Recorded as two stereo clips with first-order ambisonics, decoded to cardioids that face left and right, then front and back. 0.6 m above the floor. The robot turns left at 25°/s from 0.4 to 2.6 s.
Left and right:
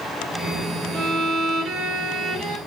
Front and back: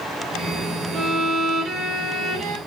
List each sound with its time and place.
0.9 s a violin: 105° right, 1.1 m; by 2.6 s 150° right, 1.1 m